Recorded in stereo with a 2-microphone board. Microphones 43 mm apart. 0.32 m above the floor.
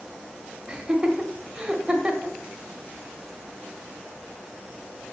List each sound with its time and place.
0.7 s laughter: 15° right (ahead or behind), 1.2 m